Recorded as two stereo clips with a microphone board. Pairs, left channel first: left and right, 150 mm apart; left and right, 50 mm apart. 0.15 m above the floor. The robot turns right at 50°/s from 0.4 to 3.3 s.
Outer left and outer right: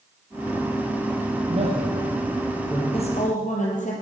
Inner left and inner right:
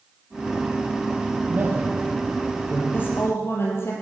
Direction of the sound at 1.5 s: 45° right (ahead or behind).